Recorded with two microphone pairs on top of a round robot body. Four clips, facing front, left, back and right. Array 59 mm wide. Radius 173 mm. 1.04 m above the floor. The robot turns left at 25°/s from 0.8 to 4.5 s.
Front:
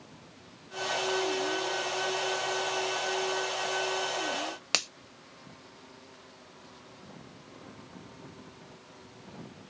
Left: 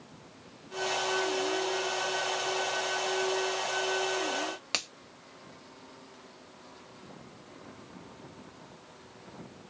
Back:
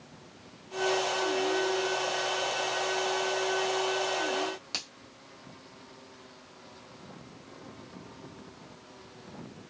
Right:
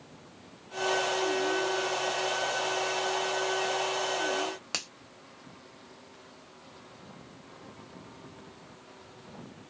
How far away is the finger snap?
About 1.0 m.